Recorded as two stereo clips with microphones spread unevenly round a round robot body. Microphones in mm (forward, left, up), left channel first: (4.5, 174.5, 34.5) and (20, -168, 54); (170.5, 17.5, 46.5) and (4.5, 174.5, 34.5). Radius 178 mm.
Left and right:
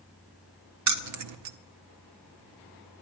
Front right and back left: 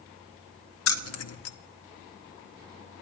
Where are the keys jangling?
50° right, 0.8 m.